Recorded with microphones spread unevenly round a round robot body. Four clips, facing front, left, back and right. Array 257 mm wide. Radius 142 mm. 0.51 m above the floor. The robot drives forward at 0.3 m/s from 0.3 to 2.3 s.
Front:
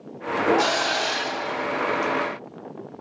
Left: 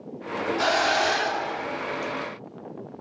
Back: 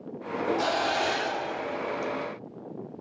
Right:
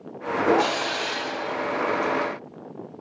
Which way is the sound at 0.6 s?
95° left.